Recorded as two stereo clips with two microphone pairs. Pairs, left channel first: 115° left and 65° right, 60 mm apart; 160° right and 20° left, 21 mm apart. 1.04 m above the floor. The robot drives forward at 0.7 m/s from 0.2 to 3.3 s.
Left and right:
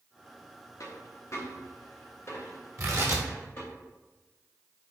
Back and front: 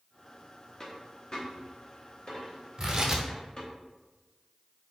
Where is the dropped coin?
135° left, 1.0 m; by 3.7 s 165° left, 2.5 m.